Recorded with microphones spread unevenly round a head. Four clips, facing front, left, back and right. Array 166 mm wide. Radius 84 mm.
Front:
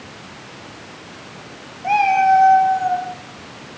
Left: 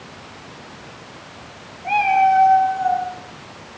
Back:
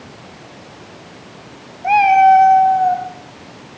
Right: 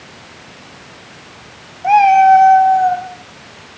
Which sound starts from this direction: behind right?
A cat meowing, at 1.8 s.